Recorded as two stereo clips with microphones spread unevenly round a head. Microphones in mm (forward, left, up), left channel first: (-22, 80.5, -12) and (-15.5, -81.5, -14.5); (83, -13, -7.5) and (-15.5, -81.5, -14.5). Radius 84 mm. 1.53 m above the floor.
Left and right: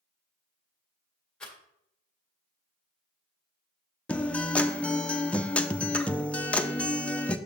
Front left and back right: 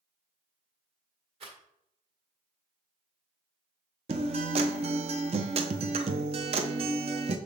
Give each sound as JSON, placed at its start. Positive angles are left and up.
{"t": 1.4, "sound": "a rattle", "azimuth_deg": 175, "distance_m": 1.8}
{"t": 4.1, "sound": "a guitar", "azimuth_deg": 175, "distance_m": 0.6}